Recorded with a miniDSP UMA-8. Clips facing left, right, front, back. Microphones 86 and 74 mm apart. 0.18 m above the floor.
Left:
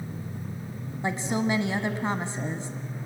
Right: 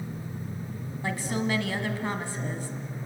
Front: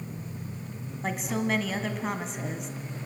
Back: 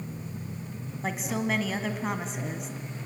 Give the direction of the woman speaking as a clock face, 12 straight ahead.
9 o'clock.